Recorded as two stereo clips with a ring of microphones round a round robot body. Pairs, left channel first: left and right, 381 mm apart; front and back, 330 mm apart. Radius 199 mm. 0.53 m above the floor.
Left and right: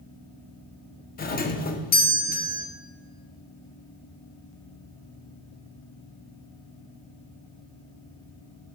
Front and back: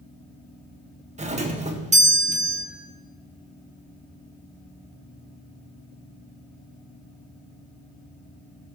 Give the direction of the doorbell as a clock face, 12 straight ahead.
8 o'clock.